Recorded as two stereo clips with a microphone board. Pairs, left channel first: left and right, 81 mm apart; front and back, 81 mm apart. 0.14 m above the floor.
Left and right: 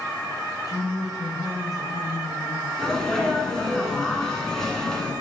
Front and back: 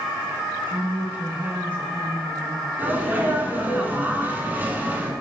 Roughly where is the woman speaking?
Behind left.